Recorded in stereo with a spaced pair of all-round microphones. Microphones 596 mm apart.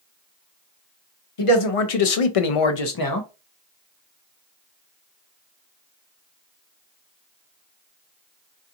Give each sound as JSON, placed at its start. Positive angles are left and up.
{"t": 1.4, "sound": "a man speaking", "side_deg": 55, "distance_m": 0.9}